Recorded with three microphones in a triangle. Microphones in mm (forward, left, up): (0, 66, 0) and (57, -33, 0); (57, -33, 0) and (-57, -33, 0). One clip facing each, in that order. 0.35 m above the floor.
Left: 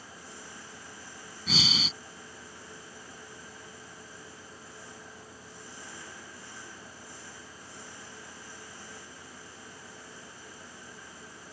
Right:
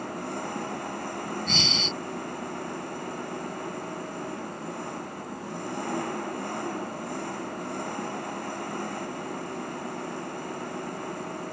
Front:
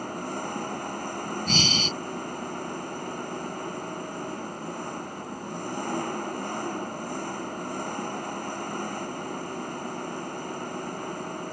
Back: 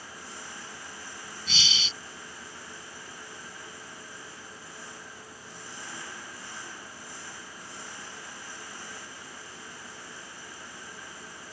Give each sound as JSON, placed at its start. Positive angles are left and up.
{"t": 0.0, "sound": "an engine running", "azimuth_deg": -35}
{"t": 1.5, "sound": "breathing", "azimuth_deg": 35}